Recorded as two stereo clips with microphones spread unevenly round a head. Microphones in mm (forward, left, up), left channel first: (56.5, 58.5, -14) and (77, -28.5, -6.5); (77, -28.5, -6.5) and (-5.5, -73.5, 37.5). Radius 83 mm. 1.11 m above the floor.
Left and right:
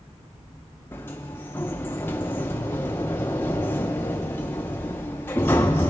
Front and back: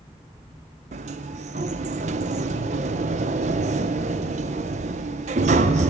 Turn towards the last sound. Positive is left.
turn(degrees=170)